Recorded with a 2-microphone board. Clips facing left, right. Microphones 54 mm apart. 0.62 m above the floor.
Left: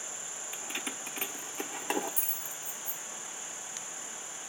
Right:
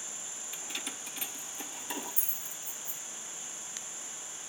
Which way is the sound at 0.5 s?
20° left (ahead or behind).